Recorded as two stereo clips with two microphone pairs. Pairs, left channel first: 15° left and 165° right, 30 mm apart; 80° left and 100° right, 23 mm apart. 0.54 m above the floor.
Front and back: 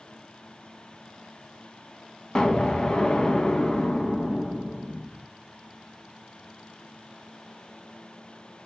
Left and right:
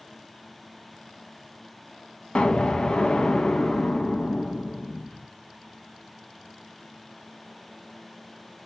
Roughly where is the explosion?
Ahead left.